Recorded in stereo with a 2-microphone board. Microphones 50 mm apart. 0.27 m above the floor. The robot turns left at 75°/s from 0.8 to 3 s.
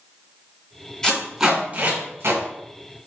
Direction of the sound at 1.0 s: 10° left (ahead or behind).